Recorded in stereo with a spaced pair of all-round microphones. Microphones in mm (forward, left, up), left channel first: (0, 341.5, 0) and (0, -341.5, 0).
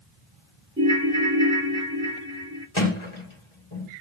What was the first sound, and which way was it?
A ringtone, 10° right (ahead or behind).